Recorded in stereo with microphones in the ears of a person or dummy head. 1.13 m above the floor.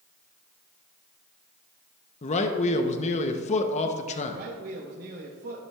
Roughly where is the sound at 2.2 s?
Left.